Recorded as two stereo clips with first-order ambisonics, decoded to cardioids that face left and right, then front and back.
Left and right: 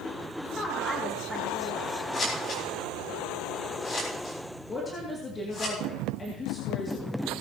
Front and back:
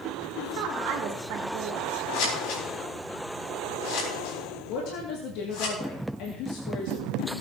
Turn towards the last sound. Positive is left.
turn(degrees=20)